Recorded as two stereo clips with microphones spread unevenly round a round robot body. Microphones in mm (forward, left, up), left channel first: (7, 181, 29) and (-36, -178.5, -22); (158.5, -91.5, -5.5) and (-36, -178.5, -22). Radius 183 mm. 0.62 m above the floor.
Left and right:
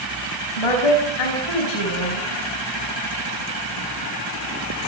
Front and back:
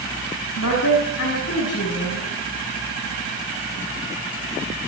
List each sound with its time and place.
0.6 s a woman speaking: 70° left, 5.5 m